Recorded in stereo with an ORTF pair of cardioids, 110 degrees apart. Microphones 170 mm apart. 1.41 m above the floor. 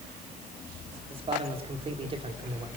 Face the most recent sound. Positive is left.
turn(degrees=-35)